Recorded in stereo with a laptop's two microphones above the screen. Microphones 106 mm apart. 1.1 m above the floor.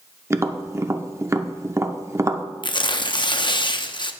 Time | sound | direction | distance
0.3 | tapping | 25° right (ahead or behind) | 0.7 m
2.6 | tearing paper | 45° left (ahead or behind) | 0.6 m